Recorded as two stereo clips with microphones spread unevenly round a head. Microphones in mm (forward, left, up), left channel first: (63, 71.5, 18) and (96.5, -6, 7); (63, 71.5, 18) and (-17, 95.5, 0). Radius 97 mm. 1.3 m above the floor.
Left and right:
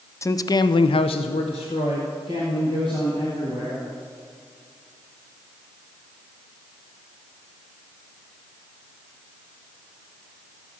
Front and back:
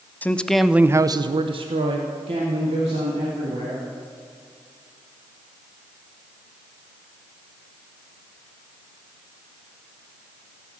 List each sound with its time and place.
0.2 s a man speaking: 55° left, 0.7 m; by 3.8 s 175° right, 2 m